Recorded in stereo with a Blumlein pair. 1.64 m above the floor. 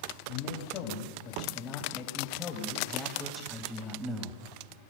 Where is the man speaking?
35° left, 4 m; by 4.4 s 20° right, 2.5 m.